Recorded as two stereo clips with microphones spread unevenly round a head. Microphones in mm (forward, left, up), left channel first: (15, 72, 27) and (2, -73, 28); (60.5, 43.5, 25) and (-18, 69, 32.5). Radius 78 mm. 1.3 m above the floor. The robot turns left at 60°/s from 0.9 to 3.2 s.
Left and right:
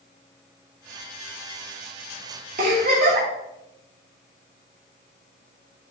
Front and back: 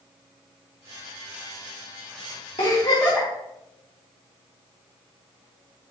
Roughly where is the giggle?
Ahead right.